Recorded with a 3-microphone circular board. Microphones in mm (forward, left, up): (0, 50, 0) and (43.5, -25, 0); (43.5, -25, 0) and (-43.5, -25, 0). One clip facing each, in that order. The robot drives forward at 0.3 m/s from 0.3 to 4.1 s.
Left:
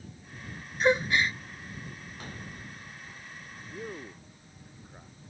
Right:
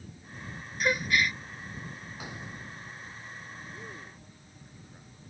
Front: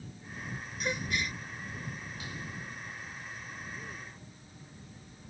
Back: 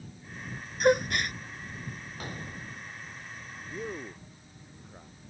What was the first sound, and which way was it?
A gasp, straight behind.